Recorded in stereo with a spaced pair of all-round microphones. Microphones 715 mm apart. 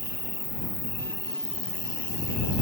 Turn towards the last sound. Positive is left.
turn(degrees=-20)  # may be behind; listen again after turning